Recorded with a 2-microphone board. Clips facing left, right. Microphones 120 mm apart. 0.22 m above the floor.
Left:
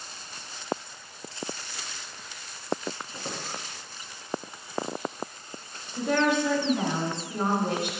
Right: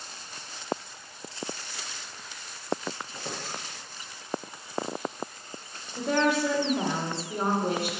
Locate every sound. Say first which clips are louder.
3.1 s a squeak: left 1 dB; 25° left (ahead or behind), 1.5 m
6.0 s a woman speaking: left 1 dB; 10° right (ahead or behind), 2 m